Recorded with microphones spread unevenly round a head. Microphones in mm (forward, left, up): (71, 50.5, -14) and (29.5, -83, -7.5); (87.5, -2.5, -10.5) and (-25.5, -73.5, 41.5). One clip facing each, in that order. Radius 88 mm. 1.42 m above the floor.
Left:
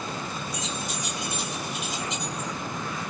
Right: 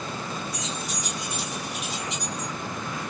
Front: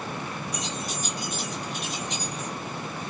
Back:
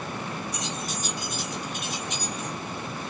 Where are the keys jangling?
165° left, 2 m.